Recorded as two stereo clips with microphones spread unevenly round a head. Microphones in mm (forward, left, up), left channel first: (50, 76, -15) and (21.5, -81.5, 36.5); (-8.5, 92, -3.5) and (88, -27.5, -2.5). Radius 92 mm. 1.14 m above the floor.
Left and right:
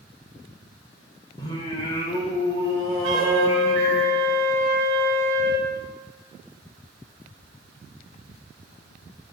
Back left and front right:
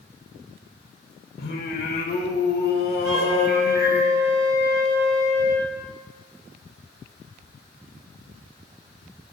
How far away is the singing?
About 1.8 m.